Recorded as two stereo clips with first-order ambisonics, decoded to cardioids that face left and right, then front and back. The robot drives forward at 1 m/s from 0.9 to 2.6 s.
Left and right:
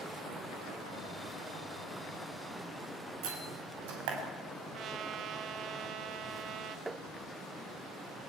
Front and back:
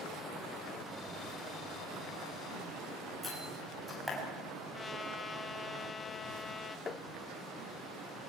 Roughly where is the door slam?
Right.